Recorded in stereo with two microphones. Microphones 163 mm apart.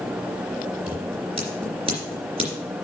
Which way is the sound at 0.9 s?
35° right (ahead or behind).